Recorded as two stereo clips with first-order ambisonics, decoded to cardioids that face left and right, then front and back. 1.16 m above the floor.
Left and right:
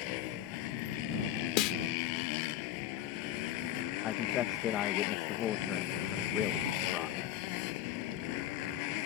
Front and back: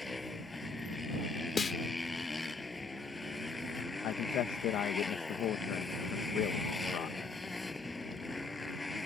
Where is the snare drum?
70° left.